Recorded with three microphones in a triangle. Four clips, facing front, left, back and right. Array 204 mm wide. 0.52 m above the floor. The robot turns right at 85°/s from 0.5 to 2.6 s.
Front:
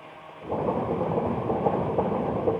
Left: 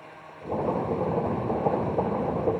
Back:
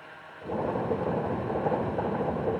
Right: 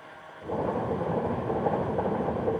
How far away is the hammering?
No hammering in this recording.